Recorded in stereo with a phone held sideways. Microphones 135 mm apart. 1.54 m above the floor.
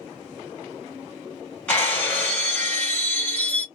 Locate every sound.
1.7 s breaking glass: 10° left (ahead or behind), 1.9 m